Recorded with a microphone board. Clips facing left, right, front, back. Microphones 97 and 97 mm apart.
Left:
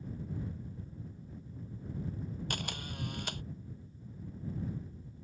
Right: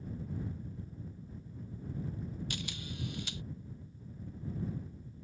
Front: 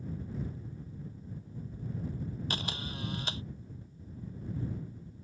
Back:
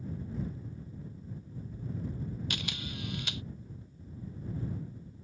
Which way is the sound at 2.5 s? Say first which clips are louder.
Left 2 dB, front 1 dB; 55° left.